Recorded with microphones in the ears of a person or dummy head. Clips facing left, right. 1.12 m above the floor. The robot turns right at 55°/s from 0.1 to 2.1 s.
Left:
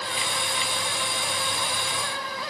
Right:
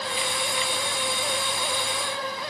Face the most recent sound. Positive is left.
No sound to turn to.